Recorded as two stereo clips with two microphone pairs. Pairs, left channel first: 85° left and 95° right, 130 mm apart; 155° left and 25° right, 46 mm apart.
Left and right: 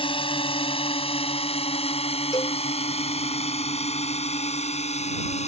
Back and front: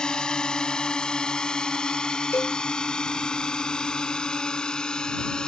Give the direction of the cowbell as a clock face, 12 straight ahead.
7 o'clock.